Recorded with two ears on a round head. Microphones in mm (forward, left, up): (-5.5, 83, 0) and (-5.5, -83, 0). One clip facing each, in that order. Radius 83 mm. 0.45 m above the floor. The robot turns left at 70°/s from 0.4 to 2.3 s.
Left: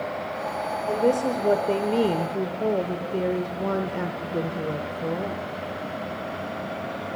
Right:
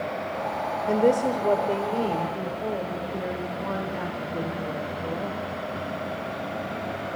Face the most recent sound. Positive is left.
turn(degrees=105)